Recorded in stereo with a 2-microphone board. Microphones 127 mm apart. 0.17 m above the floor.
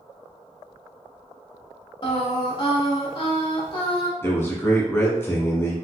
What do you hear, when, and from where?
2.0 s singing: 45° left (ahead or behind), 1.0 m
4.2 s a man speaking: 20° left (ahead or behind), 1.2 m